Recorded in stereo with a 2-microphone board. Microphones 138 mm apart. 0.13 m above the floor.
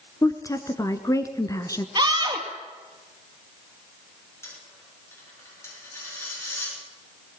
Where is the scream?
30° right (ahead or behind), 3 m.